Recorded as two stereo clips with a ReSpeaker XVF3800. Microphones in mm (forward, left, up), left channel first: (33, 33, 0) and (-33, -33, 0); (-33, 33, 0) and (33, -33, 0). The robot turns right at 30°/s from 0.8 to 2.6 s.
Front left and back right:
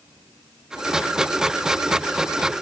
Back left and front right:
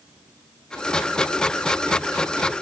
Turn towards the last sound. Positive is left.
No sound to turn to.